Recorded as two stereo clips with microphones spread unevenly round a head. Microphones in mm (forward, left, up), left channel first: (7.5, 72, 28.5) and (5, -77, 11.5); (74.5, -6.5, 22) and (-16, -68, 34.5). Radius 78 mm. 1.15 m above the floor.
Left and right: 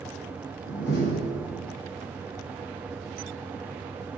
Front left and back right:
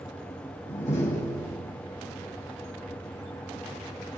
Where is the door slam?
85° left, 6.5 m.